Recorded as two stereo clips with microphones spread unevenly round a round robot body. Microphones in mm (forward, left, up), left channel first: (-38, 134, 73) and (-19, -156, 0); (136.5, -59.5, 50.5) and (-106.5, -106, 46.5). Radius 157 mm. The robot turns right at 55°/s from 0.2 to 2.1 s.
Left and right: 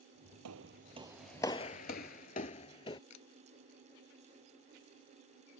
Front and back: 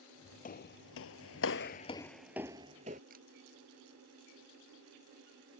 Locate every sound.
0.5 s footsteps: 40° right; by 3.0 s 140° left
3.1 s a camera shutter: 125° left